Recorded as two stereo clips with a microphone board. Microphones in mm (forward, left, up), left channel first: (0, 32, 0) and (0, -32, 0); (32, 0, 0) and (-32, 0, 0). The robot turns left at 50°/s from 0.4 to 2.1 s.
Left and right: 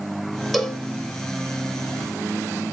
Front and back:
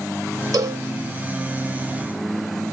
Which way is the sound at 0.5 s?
Straight behind.